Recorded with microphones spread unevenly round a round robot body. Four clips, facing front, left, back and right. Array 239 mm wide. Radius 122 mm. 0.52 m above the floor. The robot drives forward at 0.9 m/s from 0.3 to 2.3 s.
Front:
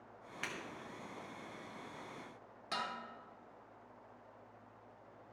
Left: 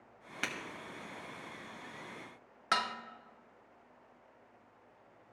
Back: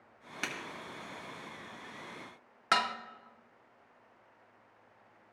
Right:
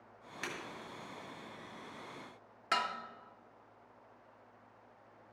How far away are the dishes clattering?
About 0.6 m.